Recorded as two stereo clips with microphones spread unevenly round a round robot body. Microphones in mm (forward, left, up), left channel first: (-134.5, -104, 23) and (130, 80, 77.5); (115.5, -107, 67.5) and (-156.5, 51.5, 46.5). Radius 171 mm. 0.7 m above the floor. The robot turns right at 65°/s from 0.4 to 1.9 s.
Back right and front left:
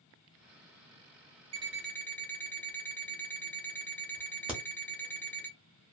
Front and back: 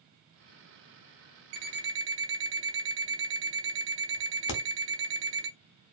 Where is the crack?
50° right, 0.8 m.